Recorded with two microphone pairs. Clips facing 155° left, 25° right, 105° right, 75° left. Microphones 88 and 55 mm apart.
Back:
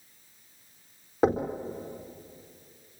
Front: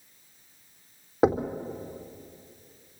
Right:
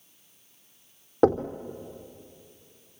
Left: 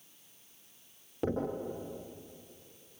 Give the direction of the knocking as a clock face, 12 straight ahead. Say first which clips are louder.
Front 1 dB, right 12 dB; 3 o'clock.